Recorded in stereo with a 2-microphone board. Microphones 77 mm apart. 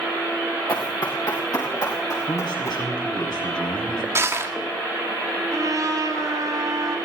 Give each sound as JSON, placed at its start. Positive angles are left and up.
{"t": 0.7, "sound": "running footsteps", "side_deg": 50, "distance_m": 3.5}
{"t": 2.3, "sound": "a man speaking", "side_deg": 70, "distance_m": 6.0}
{"t": 4.2, "sound": "crushing", "side_deg": -35, "distance_m": 1.7}
{"t": 5.5, "sound": "a trumpet", "side_deg": -45, "distance_m": 5.5}